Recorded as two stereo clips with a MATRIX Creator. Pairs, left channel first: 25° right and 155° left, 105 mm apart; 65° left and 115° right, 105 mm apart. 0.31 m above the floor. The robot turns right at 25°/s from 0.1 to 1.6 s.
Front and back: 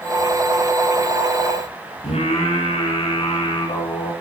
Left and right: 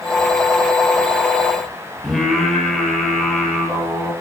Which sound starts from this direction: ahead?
Singing, at 2.0 s.